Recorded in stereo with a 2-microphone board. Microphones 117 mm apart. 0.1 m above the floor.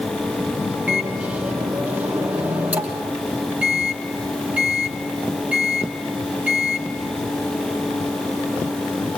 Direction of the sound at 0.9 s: 10° right (ahead or behind).